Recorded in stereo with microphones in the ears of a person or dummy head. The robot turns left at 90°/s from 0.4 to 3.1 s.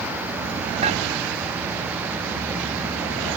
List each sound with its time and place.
0.8 s dishes clattering: 35° right (ahead or behind); by 1.0 s 50° right (ahead or behind)